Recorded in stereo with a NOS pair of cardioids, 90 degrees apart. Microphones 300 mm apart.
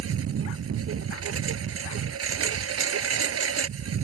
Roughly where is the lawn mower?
Ahead right.